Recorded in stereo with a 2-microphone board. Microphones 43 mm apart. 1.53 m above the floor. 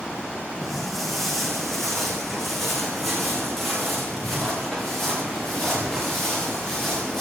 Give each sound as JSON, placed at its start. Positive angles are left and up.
{"t": 0.6, "sound": "footsteps", "side_deg": 0, "distance_m": 5.5}